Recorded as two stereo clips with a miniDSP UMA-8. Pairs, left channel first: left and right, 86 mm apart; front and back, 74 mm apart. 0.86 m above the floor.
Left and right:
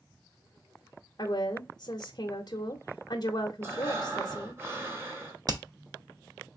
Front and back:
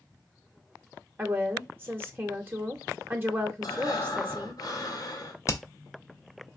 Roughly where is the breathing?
Ahead right.